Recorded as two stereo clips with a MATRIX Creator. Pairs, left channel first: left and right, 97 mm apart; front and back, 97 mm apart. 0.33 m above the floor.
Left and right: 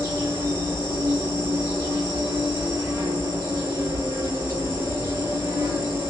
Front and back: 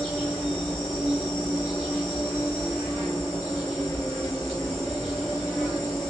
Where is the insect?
65° right, 2 m.